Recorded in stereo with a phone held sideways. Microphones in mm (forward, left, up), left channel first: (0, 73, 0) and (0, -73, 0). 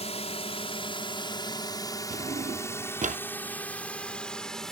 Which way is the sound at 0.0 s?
45° left (ahead or behind).